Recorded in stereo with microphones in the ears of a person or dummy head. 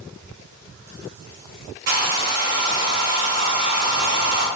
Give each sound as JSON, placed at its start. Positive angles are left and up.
{"t": 1.9, "sound": "a hair dryer", "side_deg": -55, "distance_m": 0.7}